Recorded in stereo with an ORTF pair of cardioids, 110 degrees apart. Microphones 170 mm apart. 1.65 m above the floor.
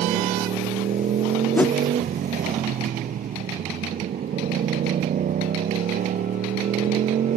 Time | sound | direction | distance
0.0 | a motorcycle | 55° right | ?
1.6 | a whoosh | 10° left | ?